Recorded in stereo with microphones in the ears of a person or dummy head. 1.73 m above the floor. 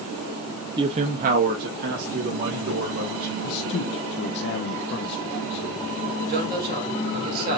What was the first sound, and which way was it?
A man speaking, 15° right (ahead or behind).